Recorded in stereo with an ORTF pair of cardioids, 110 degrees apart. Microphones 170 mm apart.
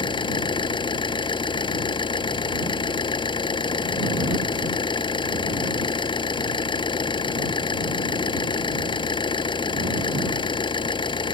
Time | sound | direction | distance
0.0 | an engine running | 30° left | ?